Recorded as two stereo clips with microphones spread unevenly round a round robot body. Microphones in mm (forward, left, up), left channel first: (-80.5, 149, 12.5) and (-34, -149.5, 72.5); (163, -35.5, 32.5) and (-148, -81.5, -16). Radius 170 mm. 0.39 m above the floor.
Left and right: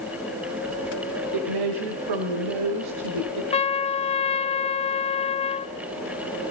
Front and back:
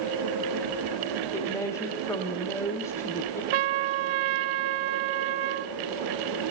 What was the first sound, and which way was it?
A woman speaking, 75° right.